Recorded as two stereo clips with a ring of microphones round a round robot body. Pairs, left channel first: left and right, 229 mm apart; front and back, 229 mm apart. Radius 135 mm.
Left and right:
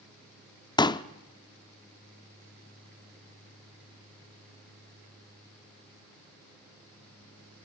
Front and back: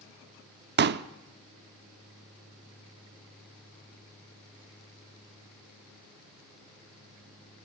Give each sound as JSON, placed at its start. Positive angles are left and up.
{"t": 0.8, "sound": "a pop", "azimuth_deg": 155, "distance_m": 0.7}